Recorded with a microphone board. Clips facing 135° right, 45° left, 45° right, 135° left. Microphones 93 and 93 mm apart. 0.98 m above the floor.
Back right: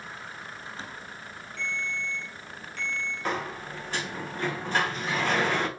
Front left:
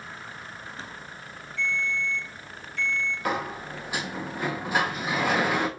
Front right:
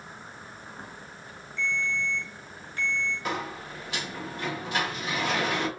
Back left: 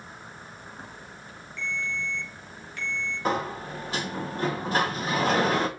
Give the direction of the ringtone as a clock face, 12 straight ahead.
3 o'clock.